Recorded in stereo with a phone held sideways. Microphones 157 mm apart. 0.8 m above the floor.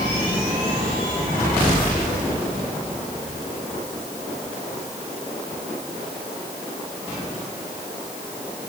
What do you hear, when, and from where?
Only background noise.